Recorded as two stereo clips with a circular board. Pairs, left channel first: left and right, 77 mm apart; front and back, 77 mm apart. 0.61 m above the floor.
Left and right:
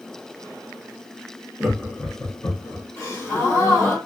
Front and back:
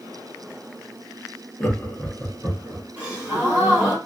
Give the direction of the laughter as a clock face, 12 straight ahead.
12 o'clock.